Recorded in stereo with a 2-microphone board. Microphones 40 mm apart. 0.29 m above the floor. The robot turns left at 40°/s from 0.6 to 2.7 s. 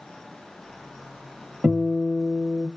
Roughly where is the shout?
No shout in this recording.